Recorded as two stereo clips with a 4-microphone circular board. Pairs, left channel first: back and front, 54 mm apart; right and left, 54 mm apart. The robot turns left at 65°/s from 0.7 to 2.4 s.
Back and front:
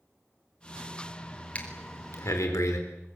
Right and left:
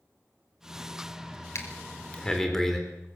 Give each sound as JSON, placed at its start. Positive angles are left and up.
{"t": 1.6, "sound": "breathing", "azimuth_deg": -120, "distance_m": 4.0}